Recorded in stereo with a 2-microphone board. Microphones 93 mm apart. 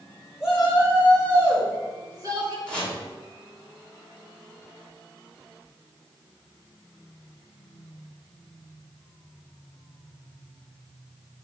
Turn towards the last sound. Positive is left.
turn(degrees=10)  # may be behind; listen again after turning